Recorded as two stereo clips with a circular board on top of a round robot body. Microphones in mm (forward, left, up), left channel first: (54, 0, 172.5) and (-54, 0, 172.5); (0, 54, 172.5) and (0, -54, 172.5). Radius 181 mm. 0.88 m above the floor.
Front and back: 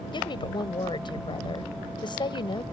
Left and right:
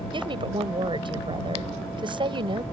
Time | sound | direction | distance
0.1 | a woman speaking | 45° right | ?